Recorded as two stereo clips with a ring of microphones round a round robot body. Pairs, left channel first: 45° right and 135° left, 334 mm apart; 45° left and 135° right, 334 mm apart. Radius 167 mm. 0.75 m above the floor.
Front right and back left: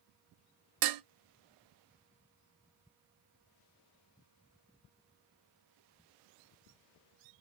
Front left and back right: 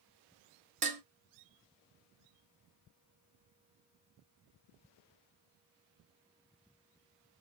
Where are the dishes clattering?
155° left, 0.6 m.